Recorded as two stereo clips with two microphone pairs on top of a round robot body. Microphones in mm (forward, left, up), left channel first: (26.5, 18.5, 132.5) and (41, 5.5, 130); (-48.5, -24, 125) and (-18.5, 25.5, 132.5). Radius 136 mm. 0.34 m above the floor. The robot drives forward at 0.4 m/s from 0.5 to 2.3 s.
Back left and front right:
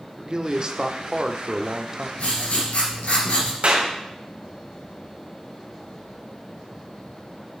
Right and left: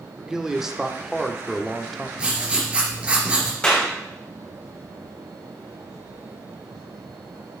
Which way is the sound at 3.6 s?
50° right.